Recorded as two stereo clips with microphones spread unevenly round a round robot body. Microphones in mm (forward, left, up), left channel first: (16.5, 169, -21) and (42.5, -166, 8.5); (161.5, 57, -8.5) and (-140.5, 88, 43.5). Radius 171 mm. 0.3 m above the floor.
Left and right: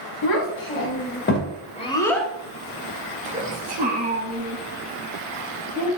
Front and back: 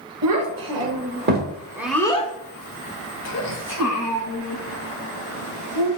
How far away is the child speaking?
About 1.1 m.